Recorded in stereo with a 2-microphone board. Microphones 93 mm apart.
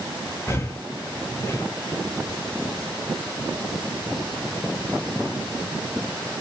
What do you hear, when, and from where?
0.5 s breathing: 25° left (ahead or behind), 0.6 m